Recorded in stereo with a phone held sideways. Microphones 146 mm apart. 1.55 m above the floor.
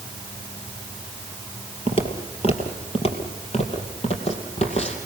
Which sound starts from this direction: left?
Footsteps, at 1.9 s.